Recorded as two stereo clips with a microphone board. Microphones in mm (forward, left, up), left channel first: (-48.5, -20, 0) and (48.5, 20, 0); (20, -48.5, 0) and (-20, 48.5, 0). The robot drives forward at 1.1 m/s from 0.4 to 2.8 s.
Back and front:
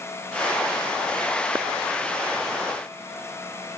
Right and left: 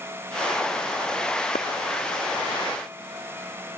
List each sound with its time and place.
1.6 s a clap: 50° right